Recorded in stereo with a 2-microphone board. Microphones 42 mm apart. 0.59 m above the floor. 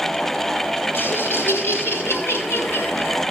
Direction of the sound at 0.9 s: 60° left (ahead or behind).